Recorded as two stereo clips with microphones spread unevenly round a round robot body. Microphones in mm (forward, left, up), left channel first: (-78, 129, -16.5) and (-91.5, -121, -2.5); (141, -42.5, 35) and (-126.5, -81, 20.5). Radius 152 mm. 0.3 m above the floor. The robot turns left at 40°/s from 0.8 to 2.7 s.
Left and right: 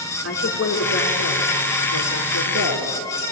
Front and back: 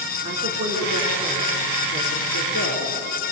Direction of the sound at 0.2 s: 120° left.